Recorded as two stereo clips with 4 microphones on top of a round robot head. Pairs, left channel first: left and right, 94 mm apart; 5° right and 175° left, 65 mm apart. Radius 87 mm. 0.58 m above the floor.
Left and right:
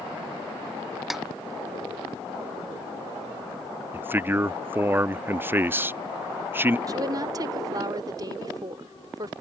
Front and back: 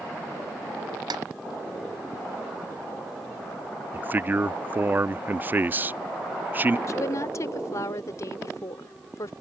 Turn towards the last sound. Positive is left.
turn(degrees=-45)